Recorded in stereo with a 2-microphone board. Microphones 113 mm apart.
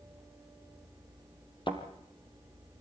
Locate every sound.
1.7 s a thud: 45° left (ahead or behind), 3.5 m